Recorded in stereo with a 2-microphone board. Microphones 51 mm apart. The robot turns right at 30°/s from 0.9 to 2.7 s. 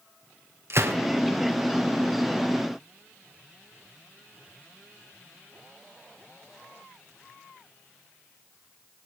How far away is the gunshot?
About 2.5 m.